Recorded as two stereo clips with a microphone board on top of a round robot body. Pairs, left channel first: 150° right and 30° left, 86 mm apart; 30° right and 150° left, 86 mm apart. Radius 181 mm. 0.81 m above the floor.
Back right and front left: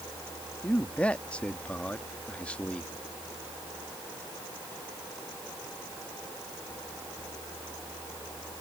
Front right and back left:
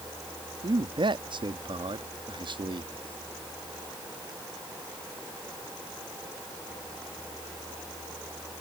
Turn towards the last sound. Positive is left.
turn(degrees=135)